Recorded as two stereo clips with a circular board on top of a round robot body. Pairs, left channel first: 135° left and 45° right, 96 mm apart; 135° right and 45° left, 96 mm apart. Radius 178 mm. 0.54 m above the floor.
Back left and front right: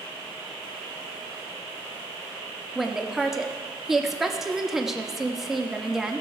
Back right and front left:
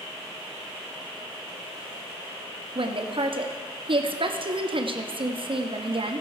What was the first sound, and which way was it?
A woman speaking, 40° left.